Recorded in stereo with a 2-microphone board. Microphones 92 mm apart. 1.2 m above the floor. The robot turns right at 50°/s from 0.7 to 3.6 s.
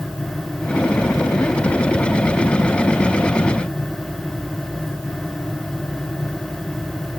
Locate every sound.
Only background noise.